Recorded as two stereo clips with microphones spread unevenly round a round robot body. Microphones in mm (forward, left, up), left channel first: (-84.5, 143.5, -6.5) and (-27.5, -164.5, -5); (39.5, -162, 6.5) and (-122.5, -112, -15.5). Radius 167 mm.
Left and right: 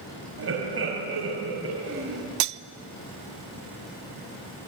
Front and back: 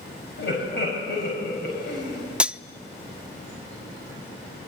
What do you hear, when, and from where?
0.4 s laughter: 25° right, 4.5 m
2.4 s cutlery clinking: 115° right, 0.7 m